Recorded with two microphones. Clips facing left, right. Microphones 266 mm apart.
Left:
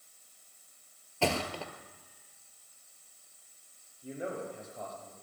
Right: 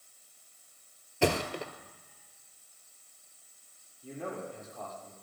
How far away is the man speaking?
About 7 m.